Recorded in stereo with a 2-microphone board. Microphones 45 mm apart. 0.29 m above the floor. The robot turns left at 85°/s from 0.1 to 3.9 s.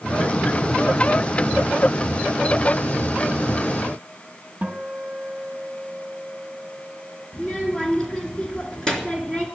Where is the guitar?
25° right (ahead or behind), 1.7 m.